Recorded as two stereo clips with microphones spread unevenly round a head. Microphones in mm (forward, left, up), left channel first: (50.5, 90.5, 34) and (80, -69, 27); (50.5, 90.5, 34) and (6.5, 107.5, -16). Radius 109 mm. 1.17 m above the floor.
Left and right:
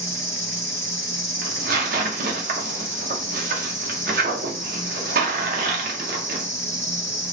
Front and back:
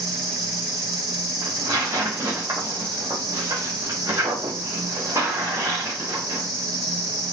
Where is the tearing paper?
130° right, 0.7 m.